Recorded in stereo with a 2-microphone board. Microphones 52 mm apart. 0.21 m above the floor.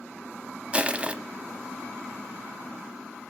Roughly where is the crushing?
Right.